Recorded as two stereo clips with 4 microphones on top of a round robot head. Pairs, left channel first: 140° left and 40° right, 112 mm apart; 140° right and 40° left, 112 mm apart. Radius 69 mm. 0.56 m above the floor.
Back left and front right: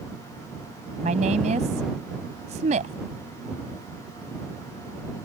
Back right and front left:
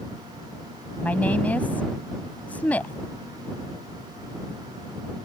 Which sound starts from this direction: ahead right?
A woman speaking, at 1.0 s.